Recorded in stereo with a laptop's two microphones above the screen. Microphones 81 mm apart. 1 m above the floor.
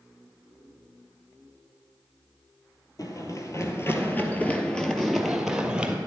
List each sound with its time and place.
3.0 s running footsteps: 50° left (ahead or behind), 1.7 m; by 6.0 s 15° right (ahead or behind), 1.7 m